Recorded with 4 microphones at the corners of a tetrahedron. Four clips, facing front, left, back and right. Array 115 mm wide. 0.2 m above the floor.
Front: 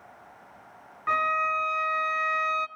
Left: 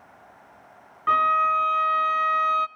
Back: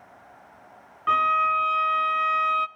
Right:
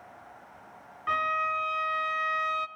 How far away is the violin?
About 0.6 m.